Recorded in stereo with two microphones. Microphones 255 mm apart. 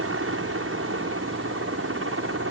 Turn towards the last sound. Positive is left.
turn(degrees=-55)  # may be behind; listen again after turning